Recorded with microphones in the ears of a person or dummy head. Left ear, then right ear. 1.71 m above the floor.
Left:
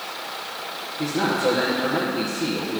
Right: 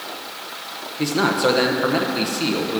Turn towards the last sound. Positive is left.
turn(degrees=-30)  # may be behind; listen again after turning